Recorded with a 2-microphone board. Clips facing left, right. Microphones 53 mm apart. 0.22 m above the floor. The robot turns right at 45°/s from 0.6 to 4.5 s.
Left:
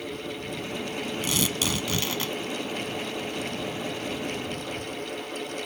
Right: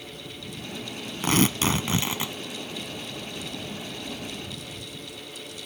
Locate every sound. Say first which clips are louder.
1.2 s tearing paper: right 8 dB; 70° right; by 2.3 s 20° right